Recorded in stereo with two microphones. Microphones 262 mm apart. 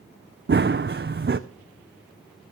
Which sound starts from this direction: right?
Running footsteps, at 0.5 s.